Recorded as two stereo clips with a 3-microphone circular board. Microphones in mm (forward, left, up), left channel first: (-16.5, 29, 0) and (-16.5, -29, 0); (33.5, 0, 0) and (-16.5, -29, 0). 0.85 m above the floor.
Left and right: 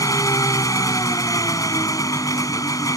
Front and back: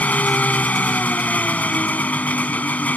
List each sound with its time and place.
0.0 s an engine running: 90° left